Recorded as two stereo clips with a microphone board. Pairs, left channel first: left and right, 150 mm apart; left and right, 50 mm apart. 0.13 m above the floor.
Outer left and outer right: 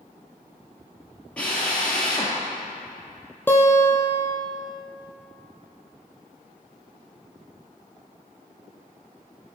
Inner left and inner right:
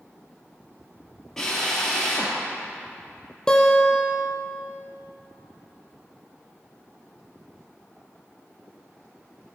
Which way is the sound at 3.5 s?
15° left (ahead or behind).